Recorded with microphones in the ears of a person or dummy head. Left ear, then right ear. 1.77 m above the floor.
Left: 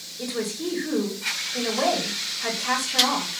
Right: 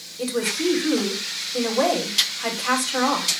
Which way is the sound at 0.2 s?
65° right (ahead or behind).